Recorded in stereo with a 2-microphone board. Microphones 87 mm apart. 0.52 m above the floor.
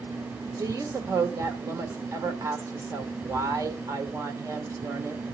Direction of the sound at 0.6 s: 40° right (ahead or behind).